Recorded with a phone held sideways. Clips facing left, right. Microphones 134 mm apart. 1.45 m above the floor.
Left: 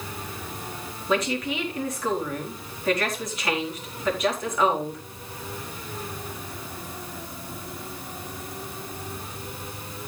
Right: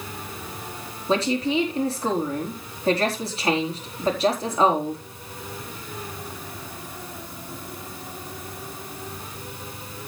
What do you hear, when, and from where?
1.1 s a woman speaking: 30° right (ahead or behind), 4 m